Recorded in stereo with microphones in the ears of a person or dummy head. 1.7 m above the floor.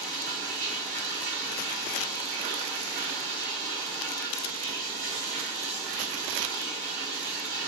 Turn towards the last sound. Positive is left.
turn(degrees=-10)  # may be behind; listen again after turning